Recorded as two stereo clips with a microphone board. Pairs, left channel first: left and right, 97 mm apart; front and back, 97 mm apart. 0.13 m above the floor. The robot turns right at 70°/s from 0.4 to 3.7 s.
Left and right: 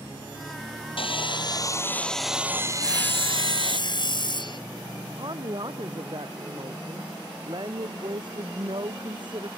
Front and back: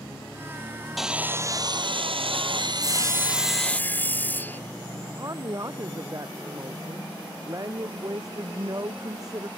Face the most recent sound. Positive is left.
turn(degrees=-125)